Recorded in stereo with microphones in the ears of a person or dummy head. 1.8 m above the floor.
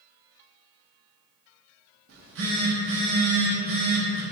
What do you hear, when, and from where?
2.1 s a phone buzzing: 60° right (ahead or behind), 0.7 m